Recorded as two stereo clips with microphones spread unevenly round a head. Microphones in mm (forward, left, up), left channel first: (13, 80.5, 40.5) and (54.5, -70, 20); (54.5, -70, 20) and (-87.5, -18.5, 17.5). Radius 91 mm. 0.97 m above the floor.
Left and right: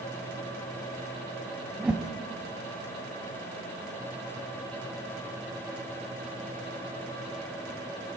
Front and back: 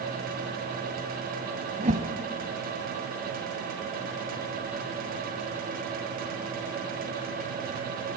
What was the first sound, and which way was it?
A whoosh, 160° right.